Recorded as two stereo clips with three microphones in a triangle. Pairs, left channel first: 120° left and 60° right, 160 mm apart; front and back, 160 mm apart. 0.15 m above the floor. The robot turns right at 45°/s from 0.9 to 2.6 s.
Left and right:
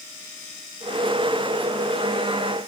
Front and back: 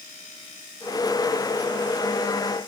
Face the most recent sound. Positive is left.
No sound to turn to.